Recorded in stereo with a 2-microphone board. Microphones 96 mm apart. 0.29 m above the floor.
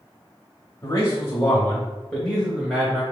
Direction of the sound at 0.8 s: 35° left (ahead or behind).